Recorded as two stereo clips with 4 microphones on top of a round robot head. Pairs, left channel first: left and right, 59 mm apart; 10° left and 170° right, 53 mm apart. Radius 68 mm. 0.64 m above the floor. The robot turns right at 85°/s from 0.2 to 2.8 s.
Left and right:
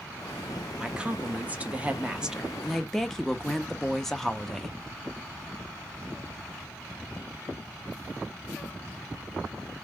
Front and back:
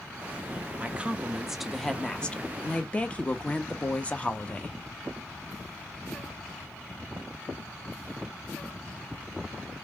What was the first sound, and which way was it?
A woman speaking, 155° right.